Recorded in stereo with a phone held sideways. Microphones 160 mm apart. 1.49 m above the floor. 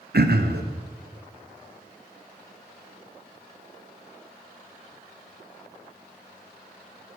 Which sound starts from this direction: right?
Throat clearing, at 0.1 s.